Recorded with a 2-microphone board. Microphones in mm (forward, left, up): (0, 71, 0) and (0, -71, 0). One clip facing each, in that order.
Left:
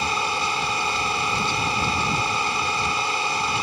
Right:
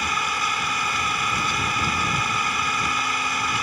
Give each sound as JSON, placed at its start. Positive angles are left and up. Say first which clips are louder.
{"t": 0.0, "sound": "an engine running", "louder": "left 2 dB", "side_deg": 30}